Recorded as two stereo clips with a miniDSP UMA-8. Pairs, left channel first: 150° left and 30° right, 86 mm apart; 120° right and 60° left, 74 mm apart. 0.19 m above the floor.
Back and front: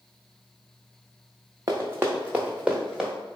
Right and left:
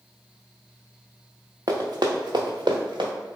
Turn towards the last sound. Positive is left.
turn(degrees=55)